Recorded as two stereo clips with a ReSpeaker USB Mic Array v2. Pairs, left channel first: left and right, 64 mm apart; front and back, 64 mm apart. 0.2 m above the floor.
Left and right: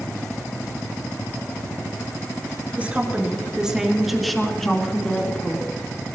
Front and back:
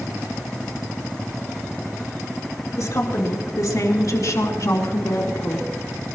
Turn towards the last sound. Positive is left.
turn(degrees=30)